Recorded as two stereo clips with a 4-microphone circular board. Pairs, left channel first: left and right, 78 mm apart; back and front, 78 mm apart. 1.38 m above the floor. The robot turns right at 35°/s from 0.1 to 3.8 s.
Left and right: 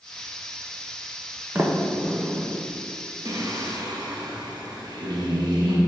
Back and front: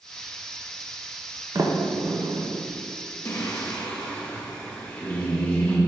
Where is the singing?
125° right, 1.4 m; by 5.8 s 105° right, 1.4 m.